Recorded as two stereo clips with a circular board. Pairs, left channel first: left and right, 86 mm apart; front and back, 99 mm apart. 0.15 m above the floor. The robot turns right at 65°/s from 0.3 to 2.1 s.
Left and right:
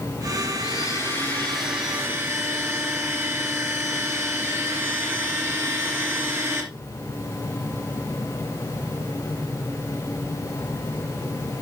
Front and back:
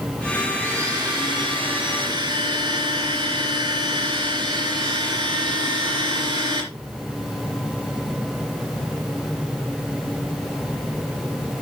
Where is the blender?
115° left, 3.5 m; by 6.7 s 150° right, 3.5 m.